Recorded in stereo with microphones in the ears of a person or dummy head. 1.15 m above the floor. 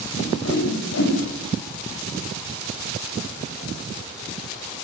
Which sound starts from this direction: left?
A whoosh, at 0.2 s.